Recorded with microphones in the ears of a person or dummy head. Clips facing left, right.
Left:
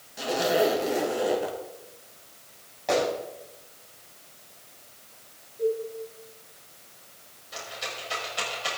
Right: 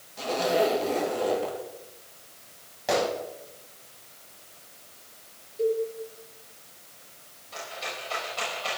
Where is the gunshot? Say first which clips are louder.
Left 1 dB; 10° right (ahead or behind), 7 m.